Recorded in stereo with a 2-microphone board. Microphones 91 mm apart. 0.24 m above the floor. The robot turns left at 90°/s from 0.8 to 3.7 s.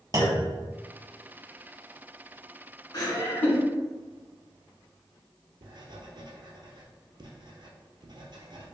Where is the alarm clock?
No alarm clock in this recording.